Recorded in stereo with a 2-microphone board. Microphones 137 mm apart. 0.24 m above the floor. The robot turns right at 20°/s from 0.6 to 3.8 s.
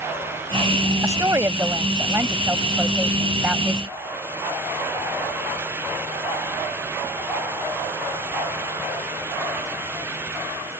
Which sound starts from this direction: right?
A woman speaking, at 1.0 s.